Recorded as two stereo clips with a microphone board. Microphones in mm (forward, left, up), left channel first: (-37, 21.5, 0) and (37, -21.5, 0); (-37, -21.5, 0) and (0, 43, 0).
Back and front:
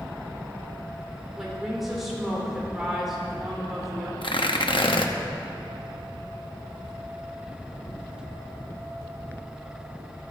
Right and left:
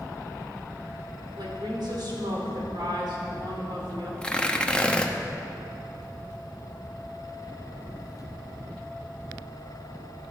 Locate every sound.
1.4 s a woman speaking: 55° left, 4 m
4.2 s tearing paper: 165° left, 0.9 m